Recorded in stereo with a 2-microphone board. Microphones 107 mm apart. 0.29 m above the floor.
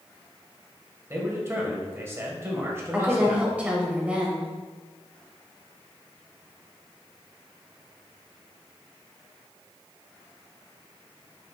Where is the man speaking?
25° right (ahead or behind), 1.0 m.